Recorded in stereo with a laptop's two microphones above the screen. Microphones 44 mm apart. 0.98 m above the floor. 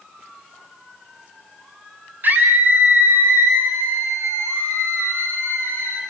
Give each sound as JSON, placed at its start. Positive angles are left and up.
{"t": 2.2, "sound": "a scream", "side_deg": -50, "distance_m": 3.5}